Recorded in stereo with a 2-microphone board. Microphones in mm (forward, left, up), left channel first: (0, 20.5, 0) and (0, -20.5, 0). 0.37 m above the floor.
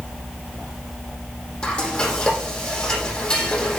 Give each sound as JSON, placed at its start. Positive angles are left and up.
{"t": 1.6, "sound": "frying", "side_deg": 30, "distance_m": 8.5}